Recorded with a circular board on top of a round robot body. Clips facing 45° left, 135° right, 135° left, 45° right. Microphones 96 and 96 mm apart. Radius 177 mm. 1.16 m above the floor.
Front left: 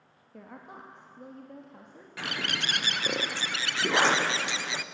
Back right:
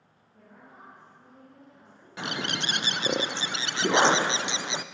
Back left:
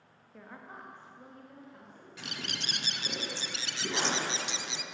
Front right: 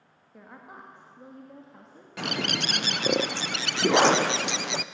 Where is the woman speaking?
35° left, 2 m; by 2.2 s 10° left, 2.5 m.